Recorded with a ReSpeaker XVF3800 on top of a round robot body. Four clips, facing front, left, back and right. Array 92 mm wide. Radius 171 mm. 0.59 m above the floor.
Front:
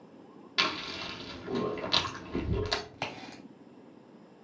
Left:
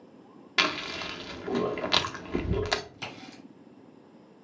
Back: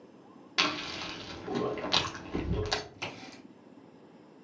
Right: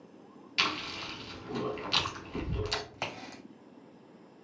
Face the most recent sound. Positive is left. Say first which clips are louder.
# right 2 dB, front 3 dB
turn(degrees=-50)